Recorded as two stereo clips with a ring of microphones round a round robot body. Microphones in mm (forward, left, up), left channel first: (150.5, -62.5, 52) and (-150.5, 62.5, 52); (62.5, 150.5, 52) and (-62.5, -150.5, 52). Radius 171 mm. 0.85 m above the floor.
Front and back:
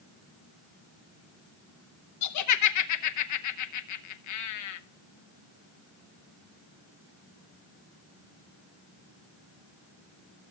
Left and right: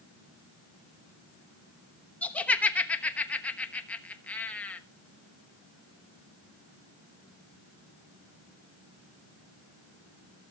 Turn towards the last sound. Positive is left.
turn(degrees=-20)